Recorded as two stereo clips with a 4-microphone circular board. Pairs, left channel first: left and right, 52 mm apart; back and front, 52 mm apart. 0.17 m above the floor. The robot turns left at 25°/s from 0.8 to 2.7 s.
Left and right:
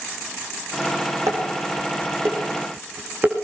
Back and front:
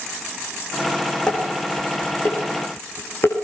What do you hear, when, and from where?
1.3 s dishes clattering: 105° right, 7 m; by 3.3 s 140° right, 7 m